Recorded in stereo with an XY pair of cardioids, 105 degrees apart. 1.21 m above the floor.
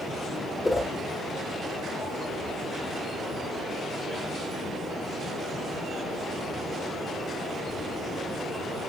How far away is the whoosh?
About 1.8 m.